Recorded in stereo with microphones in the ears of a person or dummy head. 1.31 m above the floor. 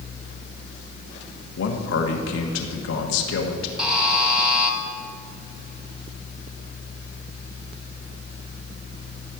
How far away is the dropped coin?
No dropped coin in this recording.